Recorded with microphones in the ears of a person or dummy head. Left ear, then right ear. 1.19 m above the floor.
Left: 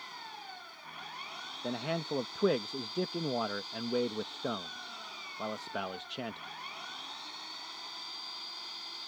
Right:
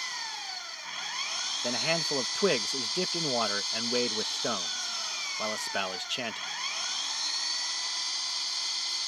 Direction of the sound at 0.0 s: 75° right (ahead or behind).